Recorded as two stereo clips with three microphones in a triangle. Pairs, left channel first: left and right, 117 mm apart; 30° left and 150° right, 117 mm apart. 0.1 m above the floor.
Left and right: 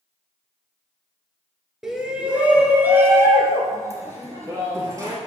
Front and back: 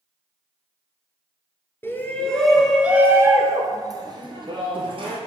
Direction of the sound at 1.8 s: 10° right.